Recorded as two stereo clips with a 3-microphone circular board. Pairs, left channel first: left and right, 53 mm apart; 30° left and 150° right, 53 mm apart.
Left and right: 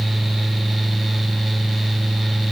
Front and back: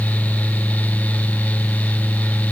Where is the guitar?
I don't hear a guitar.